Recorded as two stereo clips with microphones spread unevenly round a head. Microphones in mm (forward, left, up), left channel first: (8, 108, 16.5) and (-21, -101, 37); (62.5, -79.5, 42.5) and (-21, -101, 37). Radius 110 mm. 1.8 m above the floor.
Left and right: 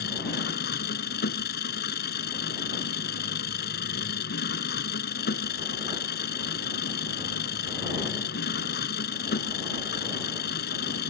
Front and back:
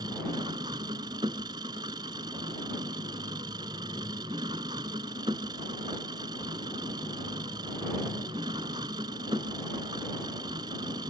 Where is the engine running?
130° left.